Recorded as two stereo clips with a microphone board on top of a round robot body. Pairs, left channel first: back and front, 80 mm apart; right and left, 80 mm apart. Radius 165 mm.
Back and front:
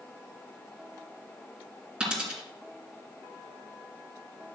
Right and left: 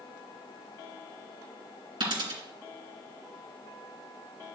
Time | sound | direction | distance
2.0 | a dropped coin | 75° left | 2.5 m